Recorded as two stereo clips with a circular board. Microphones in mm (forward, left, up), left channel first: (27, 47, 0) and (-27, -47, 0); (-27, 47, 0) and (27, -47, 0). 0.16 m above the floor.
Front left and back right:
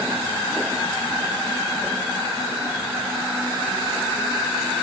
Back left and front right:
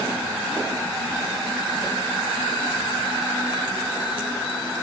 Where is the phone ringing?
I don't hear a phone ringing.